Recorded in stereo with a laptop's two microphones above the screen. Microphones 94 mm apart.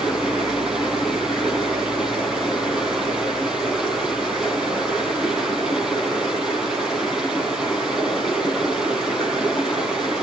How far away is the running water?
About 4.5 m.